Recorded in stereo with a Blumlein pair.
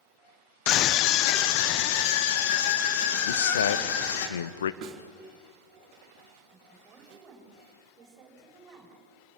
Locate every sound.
0.7 s a scream: 35° left, 0.9 m; by 4.3 s 50° left, 4 m
3.3 s a man speaking: 65° left, 1.3 m
4.8 s a snare drum: 30° right, 4.5 m
6.5 s a woman speaking: 20° right, 8.5 m